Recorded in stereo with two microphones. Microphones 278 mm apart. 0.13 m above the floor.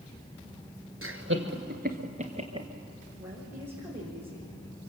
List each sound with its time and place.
1.0 s laughter: 50° right (ahead or behind), 2.5 m; by 2.7 s 15° right (ahead or behind), 2.5 m
3.2 s a woman speaking: 10° right (ahead or behind), 9.5 m